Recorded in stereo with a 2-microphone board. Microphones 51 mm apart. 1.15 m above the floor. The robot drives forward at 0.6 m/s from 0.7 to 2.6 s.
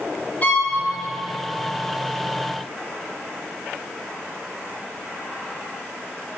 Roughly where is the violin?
Left.